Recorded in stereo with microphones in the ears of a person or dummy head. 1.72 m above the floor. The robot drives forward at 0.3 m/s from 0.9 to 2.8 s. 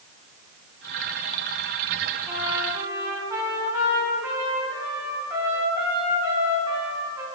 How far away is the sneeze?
No sneeze in this recording.